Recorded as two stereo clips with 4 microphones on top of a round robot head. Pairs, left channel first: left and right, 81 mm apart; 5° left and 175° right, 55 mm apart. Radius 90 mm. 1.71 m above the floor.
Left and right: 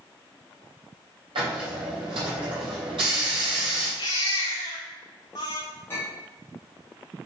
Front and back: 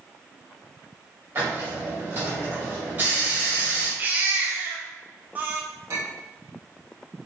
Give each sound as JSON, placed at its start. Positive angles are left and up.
{"t": 1.4, "sound": "a hiss", "azimuth_deg": -110, "distance_m": 3.5}
{"t": 4.0, "sound": "a baby crying", "azimuth_deg": 135, "distance_m": 0.5}
{"t": 5.9, "sound": "a clink", "azimuth_deg": 160, "distance_m": 2.0}